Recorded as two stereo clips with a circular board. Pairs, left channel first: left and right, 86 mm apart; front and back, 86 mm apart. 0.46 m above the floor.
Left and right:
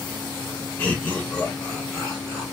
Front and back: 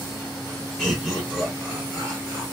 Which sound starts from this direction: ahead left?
Laughter, at 0.8 s.